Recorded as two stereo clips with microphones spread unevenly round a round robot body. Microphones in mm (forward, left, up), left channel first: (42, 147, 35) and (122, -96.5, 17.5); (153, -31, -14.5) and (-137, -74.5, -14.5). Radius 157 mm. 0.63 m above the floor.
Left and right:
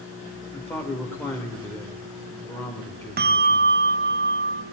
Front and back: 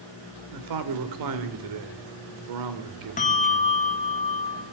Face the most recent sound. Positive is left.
turn(degrees=-45)